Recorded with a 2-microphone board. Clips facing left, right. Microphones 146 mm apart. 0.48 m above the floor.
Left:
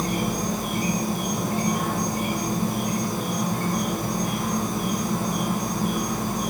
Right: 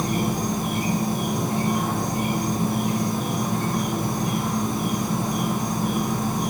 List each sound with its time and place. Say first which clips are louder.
0.0 s an insect: right 2 dB; 20° right (ahead or behind), 3 m